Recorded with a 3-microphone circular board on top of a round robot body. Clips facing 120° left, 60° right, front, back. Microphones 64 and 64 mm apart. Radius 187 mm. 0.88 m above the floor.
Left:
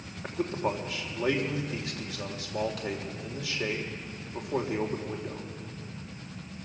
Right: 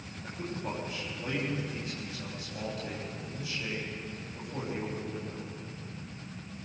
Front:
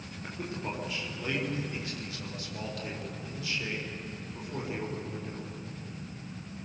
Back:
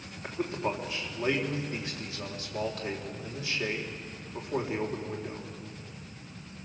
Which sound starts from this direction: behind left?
A man speaking, at 0.2 s.